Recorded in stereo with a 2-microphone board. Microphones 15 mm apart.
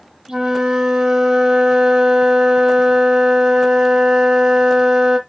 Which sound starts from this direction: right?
A flute, at 0.3 s.